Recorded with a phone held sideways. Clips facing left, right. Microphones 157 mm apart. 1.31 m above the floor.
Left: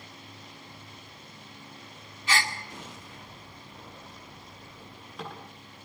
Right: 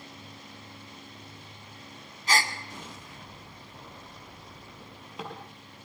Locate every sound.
2.3 s a gasp: 40° right (ahead or behind), 2 m
4.8 s a drawer: 20° right (ahead or behind), 8 m